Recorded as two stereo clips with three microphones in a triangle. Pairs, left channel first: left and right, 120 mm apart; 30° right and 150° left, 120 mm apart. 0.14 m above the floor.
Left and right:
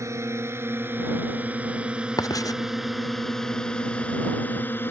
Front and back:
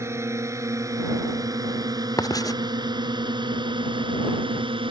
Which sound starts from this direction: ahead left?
Writing, at 2.2 s.